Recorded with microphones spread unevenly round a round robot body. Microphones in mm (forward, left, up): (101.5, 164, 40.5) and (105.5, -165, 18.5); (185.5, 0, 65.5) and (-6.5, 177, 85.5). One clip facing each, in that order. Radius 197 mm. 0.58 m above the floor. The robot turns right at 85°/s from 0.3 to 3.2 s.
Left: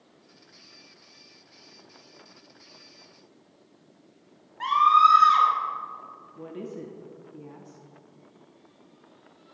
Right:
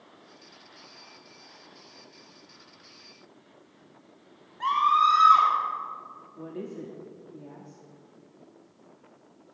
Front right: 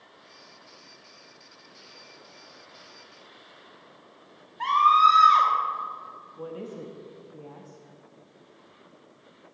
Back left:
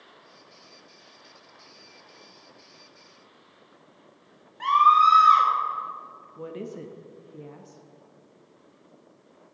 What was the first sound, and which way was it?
A scream, 65° left.